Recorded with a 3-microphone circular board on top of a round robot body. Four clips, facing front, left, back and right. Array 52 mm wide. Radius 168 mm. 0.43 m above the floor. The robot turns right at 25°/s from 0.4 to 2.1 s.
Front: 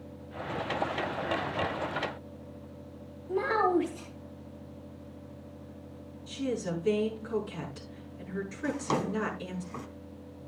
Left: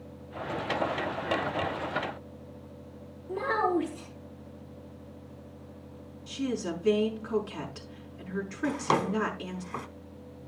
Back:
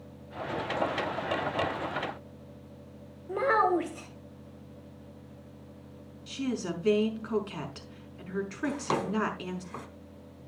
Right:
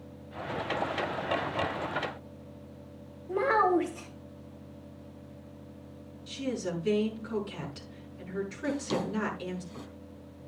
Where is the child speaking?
160° right, 2.5 m.